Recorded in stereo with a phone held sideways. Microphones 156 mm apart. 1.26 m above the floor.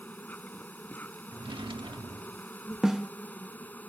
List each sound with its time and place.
0.0 s an insect: 10° left (ahead or behind)
1.3 s a drawer: 30° right (ahead or behind)
2.8 s a snare drum: 5° right (ahead or behind)